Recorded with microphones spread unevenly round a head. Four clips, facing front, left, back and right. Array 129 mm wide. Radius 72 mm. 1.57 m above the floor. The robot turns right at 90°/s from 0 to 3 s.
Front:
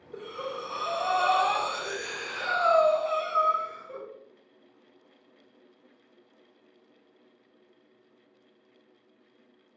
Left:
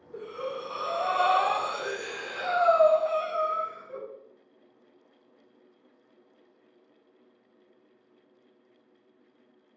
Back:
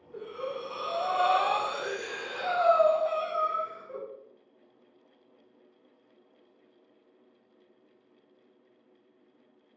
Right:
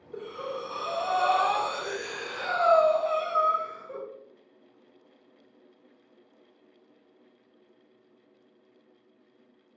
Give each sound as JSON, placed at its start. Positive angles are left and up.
{"t": 0.1, "sound": "breathing", "azimuth_deg": -5, "distance_m": 0.6}